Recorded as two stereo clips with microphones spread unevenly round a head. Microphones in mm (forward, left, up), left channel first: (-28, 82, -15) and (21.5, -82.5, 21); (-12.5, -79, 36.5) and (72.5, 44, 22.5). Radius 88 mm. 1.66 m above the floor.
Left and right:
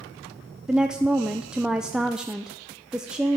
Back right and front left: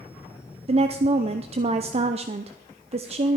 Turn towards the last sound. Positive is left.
turn(degrees=5)